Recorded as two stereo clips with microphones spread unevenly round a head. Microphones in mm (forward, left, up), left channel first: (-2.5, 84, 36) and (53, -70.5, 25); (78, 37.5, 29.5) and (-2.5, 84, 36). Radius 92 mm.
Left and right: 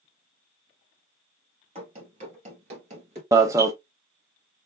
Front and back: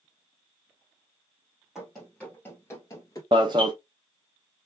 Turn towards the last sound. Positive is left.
turn(degrees=-145)